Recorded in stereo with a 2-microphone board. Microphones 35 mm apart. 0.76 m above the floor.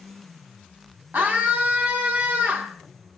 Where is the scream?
65° right (ahead or behind), 1.8 m.